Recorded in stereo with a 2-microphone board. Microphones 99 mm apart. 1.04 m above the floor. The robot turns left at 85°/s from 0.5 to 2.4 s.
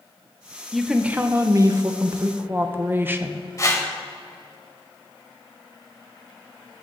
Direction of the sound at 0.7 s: Straight ahead.